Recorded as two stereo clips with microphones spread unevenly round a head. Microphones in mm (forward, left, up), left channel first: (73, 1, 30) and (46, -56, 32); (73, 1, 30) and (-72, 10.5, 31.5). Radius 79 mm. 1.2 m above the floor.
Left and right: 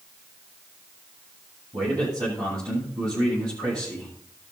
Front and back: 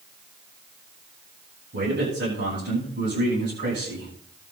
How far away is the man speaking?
About 10 m.